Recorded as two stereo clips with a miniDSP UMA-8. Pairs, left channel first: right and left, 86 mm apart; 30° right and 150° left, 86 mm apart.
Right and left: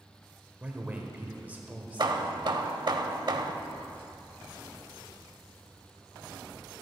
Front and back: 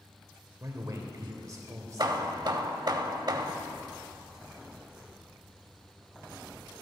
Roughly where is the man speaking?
Behind left.